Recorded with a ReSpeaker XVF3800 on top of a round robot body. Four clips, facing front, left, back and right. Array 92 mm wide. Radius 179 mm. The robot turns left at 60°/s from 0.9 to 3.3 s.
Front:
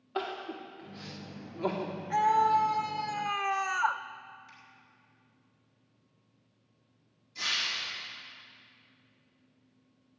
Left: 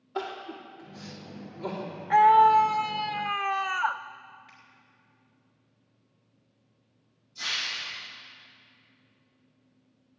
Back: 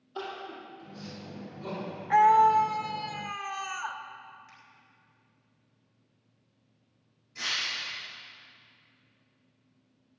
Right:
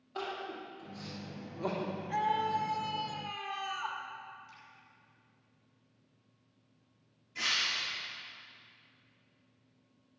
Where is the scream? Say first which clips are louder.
Left 15 dB, back 5 dB; 130° left, 0.8 m; by 4.0 s 60° left, 0.8 m.